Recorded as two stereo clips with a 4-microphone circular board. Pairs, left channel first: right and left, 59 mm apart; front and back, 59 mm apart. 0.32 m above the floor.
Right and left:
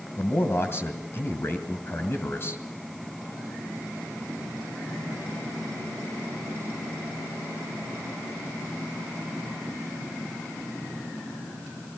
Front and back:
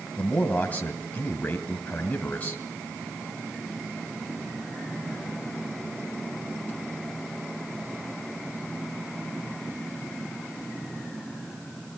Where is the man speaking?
55° right, 1.9 m.